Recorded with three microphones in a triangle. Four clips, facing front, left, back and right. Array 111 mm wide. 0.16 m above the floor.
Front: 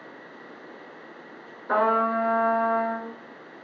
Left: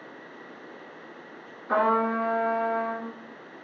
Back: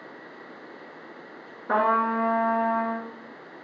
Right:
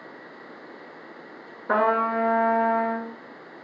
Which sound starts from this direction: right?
A trumpet, at 1.7 s.